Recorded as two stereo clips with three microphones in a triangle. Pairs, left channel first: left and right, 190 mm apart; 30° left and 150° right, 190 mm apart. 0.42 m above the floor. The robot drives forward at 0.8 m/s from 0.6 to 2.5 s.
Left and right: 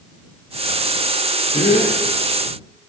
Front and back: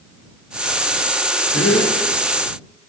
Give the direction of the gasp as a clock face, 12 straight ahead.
11 o'clock.